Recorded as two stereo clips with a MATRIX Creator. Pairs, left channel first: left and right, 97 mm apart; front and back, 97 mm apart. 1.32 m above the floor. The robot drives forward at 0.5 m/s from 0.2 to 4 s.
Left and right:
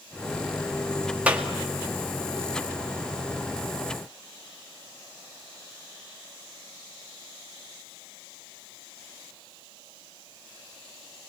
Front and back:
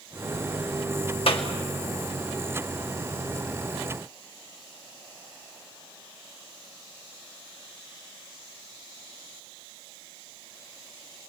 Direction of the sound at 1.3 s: 15° right.